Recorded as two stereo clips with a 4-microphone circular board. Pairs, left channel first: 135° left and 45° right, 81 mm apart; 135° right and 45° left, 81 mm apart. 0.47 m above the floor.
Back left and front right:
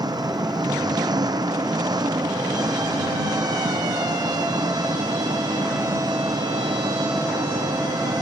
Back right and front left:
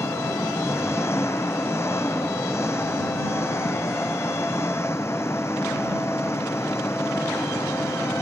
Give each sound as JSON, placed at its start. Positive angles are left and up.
{"t": 0.0, "sound": "an engine running", "azimuth_deg": -80}